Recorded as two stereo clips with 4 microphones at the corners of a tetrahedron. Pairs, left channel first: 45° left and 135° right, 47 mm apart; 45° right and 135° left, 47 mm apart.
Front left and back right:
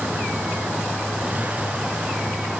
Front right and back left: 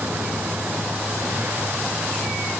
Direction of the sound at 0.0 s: 170° left.